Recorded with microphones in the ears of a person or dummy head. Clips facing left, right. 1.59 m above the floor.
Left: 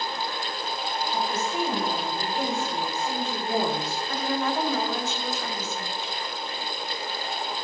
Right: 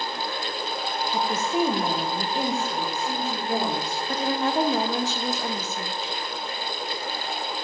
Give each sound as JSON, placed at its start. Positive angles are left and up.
{"t": 1.1, "sound": "a woman speaking", "side_deg": -55, "distance_m": 1.4}
{"t": 4.1, "sound": "a woman speaking", "side_deg": -30, "distance_m": 0.9}